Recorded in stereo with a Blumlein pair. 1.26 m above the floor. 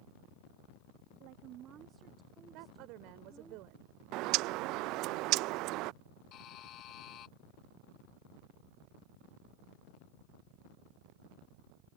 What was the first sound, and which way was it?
A woman speaking, 45° right.